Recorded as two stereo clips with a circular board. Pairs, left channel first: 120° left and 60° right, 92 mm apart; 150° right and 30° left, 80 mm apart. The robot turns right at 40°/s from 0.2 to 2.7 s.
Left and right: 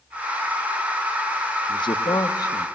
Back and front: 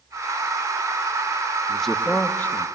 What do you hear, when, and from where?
1.7 s a man speaking: 120° left, 1.0 m; by 2.7 s 160° left, 1.0 m